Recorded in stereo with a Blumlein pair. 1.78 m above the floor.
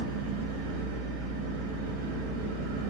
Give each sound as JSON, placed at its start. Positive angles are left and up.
{"t": 0.0, "sound": "an engine running", "azimuth_deg": -65, "distance_m": 1.5}